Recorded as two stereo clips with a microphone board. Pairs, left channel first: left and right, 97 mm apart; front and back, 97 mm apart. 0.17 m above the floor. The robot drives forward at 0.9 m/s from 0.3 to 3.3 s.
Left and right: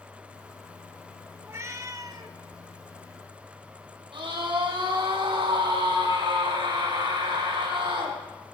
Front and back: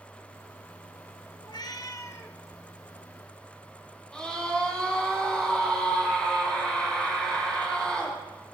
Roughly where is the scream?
Right.